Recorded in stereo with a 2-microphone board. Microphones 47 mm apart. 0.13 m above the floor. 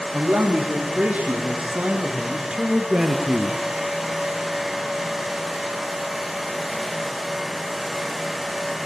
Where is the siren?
I don't hear a siren.